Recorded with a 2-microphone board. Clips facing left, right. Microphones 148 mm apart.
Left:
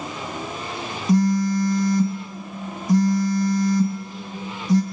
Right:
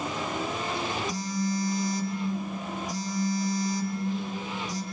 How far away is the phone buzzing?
About 2 m.